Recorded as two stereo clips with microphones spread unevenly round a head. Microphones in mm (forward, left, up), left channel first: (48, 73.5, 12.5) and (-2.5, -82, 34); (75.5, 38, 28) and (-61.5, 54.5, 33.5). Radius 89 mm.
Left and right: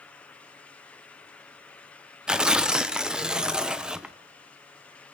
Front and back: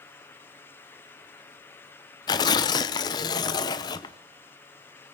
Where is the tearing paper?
45° right, 0.7 m.